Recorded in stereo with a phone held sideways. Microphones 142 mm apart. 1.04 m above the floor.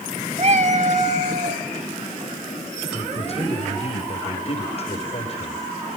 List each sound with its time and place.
0.4 s a cat meowing: 45° right (ahead or behind), 1.0 m; by 1.6 s 50° right (ahead or behind), 1.9 m
2.9 s a man speaking: 40° left (ahead or behind), 5 m